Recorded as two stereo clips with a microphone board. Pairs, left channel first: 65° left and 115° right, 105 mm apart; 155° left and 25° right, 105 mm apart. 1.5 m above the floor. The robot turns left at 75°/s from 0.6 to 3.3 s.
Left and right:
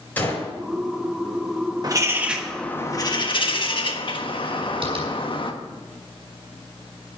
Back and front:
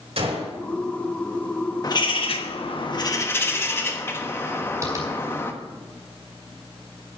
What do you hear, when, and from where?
0.2 s a gunshot: 5° right, 5 m
1.8 s a bird: 155° right, 1.3 m; by 5.5 s 95° left, 1.3 m
4.8 s tapping: 80° right, 6 m